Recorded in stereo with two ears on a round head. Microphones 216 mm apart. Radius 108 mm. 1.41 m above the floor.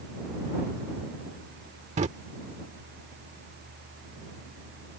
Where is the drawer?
30° right (ahead or behind).